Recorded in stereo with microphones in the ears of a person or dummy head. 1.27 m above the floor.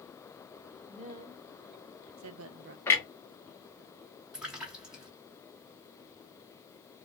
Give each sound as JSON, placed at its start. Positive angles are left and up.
{"t": 0.9, "sound": "a woman speaking", "side_deg": -30, "distance_m": 1.2}
{"t": 2.9, "sound": "a clunk", "side_deg": 10, "distance_m": 0.7}
{"t": 4.3, "sound": "a splash", "side_deg": -10, "distance_m": 0.9}